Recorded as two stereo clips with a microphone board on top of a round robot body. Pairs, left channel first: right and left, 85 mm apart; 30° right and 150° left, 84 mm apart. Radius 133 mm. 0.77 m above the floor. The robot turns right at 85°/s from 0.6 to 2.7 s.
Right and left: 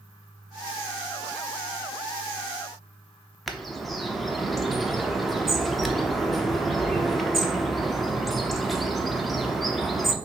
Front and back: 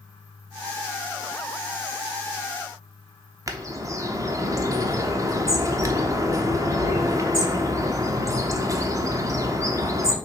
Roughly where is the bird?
Behind.